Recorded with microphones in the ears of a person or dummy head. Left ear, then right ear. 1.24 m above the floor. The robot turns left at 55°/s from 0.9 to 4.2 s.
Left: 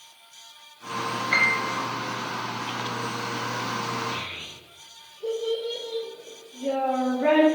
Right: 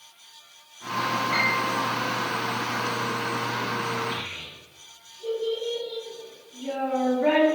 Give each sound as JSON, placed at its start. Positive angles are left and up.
{"t": 1.3, "sound": "a piano", "side_deg": 35, "distance_m": 0.6}
{"t": 4.1, "sound": "a child speaking", "side_deg": 0, "distance_m": 1.3}